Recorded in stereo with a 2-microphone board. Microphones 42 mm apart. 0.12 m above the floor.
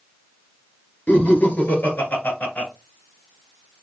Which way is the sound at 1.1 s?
40° left (ahead or behind).